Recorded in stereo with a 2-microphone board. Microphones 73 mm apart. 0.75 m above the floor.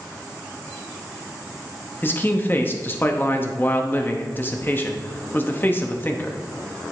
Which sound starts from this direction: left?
A man speaking, at 2.0 s.